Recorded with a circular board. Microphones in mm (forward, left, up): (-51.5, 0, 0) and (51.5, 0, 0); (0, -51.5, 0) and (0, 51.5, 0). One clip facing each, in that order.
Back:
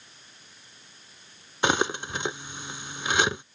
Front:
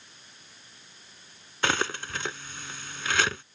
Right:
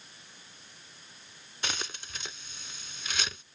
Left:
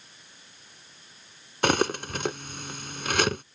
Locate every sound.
1.6 s cutlery clinking: 110° left